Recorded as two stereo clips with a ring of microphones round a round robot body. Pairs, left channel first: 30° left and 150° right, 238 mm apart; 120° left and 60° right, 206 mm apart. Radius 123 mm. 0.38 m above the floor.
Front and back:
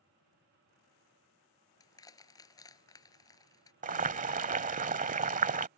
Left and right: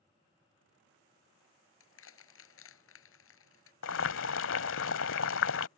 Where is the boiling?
150° left.